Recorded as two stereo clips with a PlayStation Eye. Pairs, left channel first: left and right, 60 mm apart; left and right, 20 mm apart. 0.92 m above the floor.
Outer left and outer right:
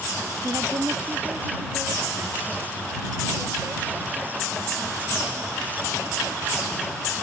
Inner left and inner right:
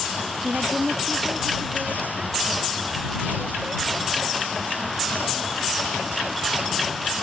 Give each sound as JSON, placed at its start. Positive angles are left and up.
{"t": 0.4, "sound": "a woman speaking", "side_deg": -65}